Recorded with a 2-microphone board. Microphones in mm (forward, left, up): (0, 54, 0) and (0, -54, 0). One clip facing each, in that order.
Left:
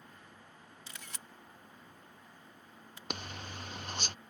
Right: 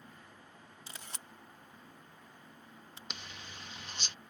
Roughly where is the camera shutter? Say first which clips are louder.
Right 1 dB; right.